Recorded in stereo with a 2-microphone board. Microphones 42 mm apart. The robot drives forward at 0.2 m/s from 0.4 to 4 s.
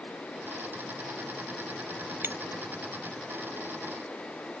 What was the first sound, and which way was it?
Breaking glass, 55° right (ahead or behind).